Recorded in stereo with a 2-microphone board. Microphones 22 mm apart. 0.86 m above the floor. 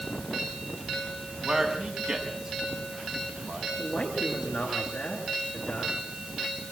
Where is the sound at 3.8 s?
75° left (ahead or behind), 10 m.